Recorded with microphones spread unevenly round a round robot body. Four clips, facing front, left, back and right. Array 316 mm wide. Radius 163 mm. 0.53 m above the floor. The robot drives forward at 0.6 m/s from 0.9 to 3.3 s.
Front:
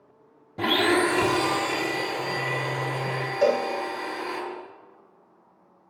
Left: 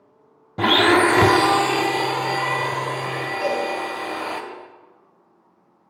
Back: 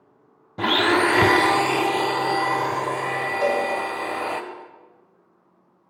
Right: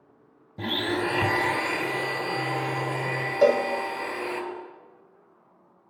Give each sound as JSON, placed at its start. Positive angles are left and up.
{"t": 0.6, "sound": "a blender", "azimuth_deg": 85, "distance_m": 0.5}
{"t": 3.4, "sound": "a cowbell", "azimuth_deg": -75, "distance_m": 2.0}